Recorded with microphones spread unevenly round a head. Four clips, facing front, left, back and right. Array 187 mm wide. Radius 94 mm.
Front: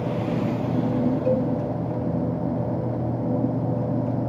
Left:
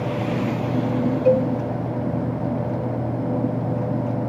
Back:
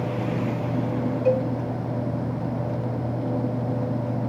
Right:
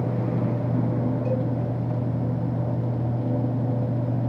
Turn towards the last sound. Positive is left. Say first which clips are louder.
# left 9 dB, back 4 dB
turn(degrees=125)